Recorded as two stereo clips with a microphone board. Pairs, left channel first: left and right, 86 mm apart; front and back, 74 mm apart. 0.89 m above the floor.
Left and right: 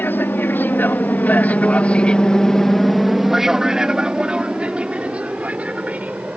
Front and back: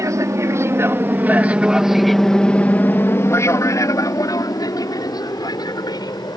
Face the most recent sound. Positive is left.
turn(degrees=-15)